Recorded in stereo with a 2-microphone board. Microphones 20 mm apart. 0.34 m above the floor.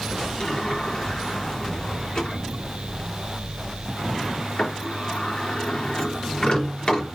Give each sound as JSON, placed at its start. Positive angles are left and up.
{"t": 0.4, "sound": "a sliding door", "side_deg": 45, "distance_m": 4.5}